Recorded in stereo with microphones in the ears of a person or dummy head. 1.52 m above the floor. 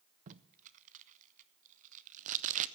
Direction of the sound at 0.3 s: 45° right (ahead or behind).